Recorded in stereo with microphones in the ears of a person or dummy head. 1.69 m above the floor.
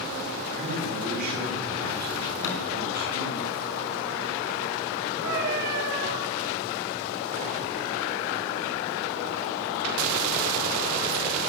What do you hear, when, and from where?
0.5 s a man speaking: 50° right (ahead or behind), 8.5 m
2.4 s a thud: 70° left (ahead or behind), 4.5 m
5.2 s a cat meowing: 55° right (ahead or behind), 5 m